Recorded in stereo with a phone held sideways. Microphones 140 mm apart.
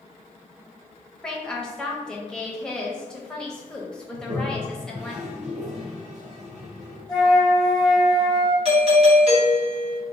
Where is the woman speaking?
5° left (ahead or behind), 0.8 m.